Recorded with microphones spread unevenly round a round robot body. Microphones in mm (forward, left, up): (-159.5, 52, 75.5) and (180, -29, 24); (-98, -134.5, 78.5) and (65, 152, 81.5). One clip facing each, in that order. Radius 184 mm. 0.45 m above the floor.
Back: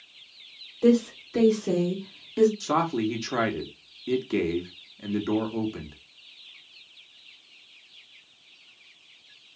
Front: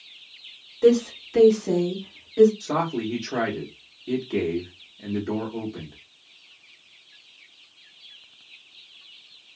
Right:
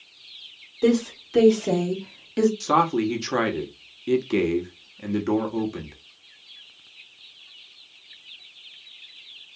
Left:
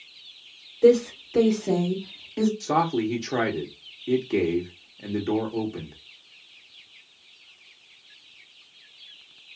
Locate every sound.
0.8 s a woman speaking: 60° right, 1.8 m; by 2.5 s 140° right, 1.5 m
2.6 s a man speaking: 150° right, 0.8 m